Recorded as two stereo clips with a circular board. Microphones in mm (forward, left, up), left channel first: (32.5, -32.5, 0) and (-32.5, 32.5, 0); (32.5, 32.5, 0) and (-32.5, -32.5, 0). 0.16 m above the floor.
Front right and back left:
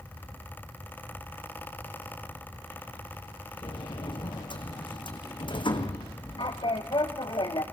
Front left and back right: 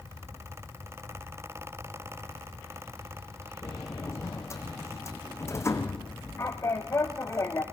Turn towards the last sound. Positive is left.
turn(degrees=-15)